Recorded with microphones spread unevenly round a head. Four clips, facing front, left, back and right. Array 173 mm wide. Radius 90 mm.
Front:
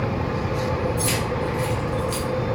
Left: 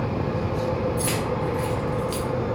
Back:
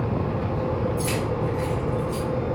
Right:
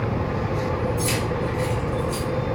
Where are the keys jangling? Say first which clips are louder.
Right 1 dB, front 1 dB; 95° left, 1.1 m; by 2.2 s 45° left, 0.6 m.